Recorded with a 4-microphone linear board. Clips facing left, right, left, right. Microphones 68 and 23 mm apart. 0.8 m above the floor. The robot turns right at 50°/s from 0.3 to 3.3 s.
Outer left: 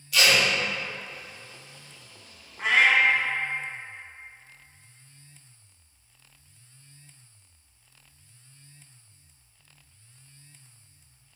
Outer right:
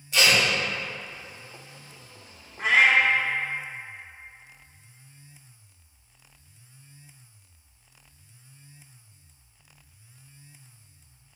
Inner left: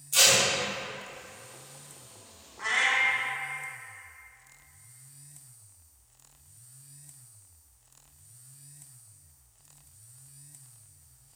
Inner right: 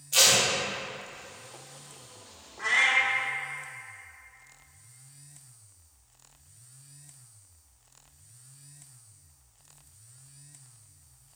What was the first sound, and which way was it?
Tape being pulled, 30° right (ahead or behind).